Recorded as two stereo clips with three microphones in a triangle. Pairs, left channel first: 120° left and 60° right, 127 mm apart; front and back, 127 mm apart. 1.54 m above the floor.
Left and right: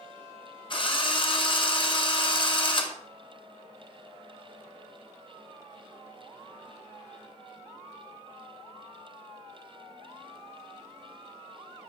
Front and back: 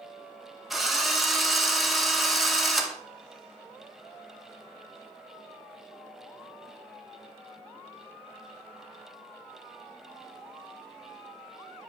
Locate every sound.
0.7 s a drill: 90° left, 0.9 m